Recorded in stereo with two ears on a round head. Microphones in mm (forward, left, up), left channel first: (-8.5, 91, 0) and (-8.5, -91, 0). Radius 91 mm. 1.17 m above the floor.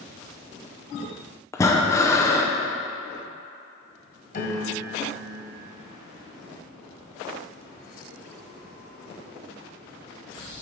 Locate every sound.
1.5 s breathing: 15° left (ahead or behind), 0.5 m
4.3 s a piano: 55° left (ahead or behind), 1.8 m